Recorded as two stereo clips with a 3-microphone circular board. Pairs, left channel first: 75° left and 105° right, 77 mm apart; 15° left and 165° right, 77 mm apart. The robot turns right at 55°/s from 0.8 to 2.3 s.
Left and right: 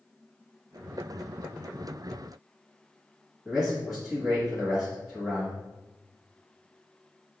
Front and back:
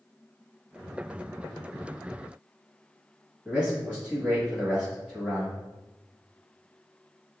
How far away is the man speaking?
About 1.5 m.